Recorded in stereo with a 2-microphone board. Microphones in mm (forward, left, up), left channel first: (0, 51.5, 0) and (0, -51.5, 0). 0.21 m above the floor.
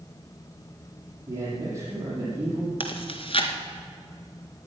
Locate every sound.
1.3 s a man speaking: 30° right (ahead or behind), 6.5 m
2.8 s chewing: 60° left (ahead or behind), 1.6 m